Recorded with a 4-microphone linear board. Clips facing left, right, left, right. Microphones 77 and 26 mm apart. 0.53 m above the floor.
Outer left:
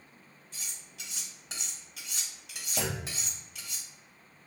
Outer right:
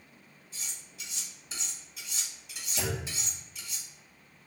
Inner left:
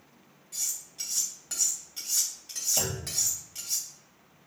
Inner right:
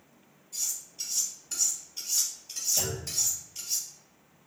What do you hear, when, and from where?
0.5 s cutlery clinking: 75° left (ahead or behind), 1.5 m
2.8 s a clunk: 65° left (ahead or behind), 0.5 m